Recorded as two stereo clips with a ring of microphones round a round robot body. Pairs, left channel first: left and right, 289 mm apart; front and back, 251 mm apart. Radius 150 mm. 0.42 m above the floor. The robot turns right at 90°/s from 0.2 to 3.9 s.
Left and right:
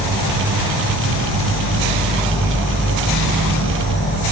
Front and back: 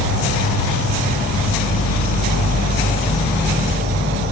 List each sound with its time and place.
0.0 s an insect: 165° left, 0.7 m; by 4.3 s 140° left, 0.7 m